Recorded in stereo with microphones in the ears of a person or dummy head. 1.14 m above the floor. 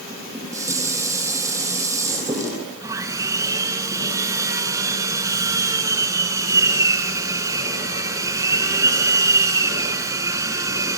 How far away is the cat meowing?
I don't hear a cat meowing.